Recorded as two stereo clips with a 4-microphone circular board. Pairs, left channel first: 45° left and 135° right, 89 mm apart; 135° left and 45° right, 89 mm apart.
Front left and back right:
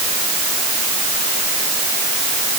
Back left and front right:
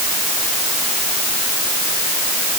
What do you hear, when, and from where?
Only background noise.